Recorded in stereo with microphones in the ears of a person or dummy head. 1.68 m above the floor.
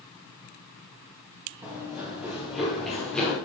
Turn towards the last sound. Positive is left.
turn(degrees=5)  # may be behind; listen again after turning